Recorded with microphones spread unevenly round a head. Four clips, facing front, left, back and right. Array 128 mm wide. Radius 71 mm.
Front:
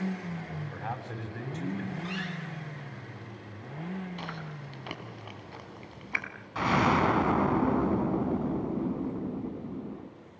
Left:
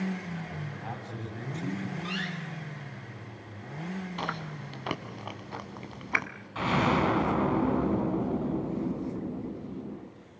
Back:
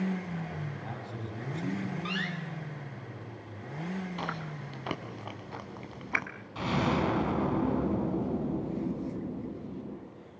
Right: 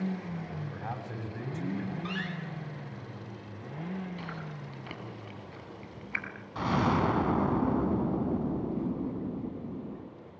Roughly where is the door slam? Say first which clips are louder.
Left 1 dB, back 1 dB; behind right.